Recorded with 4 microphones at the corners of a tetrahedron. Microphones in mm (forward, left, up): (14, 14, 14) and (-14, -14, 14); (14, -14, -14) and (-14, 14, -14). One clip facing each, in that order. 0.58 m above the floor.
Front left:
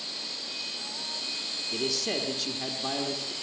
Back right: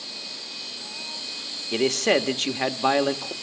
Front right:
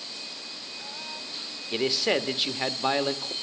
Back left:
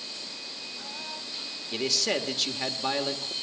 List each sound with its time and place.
1.7 s a man speaking: 110° right, 1.2 m